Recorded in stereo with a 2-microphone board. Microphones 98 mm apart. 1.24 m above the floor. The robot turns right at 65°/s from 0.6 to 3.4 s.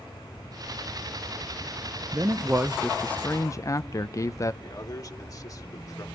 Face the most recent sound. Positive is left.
turn(degrees=40)  # may be behind; listen again after turning